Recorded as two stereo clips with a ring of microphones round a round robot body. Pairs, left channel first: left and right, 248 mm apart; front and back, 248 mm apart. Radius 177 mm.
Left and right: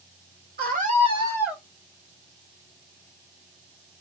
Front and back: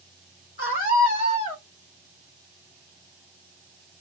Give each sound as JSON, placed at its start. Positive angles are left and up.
{"t": 0.6, "sound": "a scream", "azimuth_deg": -45, "distance_m": 2.5}